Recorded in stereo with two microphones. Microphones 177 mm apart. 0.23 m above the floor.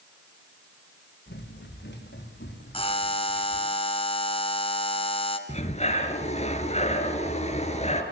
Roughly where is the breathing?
Left.